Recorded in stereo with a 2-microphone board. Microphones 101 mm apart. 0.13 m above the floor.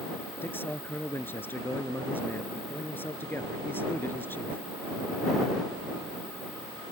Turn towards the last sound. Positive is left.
turn(degrees=20)  # may be behind; listen again after turning